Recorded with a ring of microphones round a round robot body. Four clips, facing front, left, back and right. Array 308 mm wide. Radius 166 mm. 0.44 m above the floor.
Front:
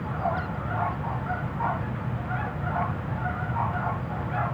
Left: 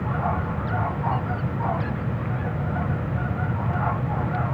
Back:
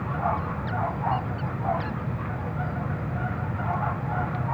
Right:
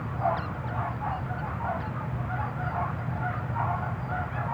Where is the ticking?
I don't hear ticking.